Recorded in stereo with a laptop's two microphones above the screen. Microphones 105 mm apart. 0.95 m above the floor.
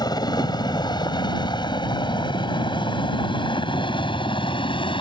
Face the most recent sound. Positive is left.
turn(degrees=50)  # may be behind; listen again after turning